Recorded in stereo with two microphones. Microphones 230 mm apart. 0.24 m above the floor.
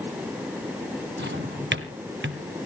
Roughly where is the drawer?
Right.